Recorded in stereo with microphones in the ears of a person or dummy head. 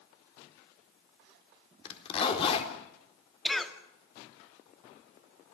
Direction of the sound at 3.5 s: Centre (ahead or behind).